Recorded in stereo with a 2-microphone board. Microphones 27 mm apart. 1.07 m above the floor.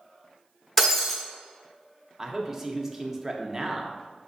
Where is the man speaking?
20° right (ahead or behind), 0.5 m.